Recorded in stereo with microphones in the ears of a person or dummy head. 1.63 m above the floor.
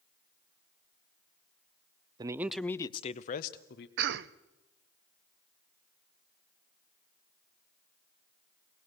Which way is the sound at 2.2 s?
25° right (ahead or behind).